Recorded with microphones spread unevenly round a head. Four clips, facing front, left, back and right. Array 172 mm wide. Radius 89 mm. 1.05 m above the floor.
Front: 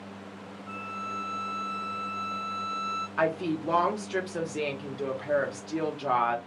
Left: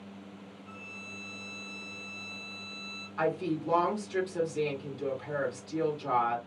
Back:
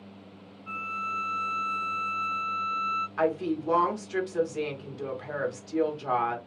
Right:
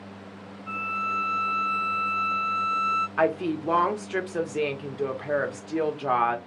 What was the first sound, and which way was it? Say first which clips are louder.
A violin: right 22 dB, back 3 dB; 120° right.